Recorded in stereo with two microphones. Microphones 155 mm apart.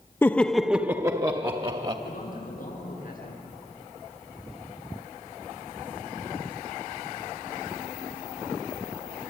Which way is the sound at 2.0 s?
65° left (ahead or behind).